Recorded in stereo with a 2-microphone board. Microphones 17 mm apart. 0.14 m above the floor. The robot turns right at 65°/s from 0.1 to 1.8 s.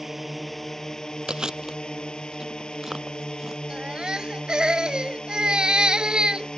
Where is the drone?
15° right; by 6.6 s 95° left.